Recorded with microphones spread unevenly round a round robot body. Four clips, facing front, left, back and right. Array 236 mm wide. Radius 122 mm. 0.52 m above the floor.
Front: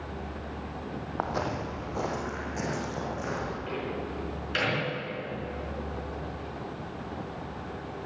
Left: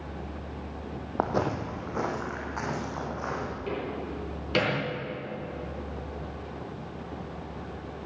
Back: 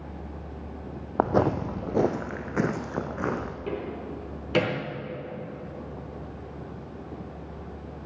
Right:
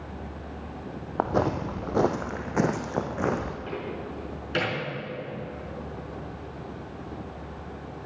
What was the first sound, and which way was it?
Footsteps, 175° right.